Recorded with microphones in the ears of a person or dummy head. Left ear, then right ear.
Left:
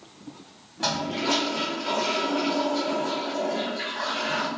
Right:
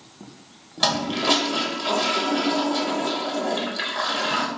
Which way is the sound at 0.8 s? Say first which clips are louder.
Right 5 dB; 30° right (ahead or behind).